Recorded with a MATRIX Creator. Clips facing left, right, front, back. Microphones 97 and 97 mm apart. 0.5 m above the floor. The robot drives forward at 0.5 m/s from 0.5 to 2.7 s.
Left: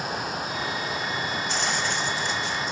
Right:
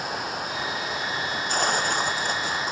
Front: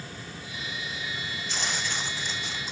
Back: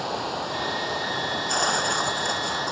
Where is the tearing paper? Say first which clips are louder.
Right 6 dB, back 9 dB; 135° right.